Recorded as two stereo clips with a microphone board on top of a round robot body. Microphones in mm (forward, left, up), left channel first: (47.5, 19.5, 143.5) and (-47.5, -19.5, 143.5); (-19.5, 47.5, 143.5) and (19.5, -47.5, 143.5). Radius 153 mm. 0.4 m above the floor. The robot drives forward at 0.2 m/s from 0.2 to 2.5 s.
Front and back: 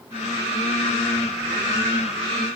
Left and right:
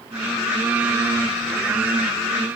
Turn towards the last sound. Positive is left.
No sound to turn to.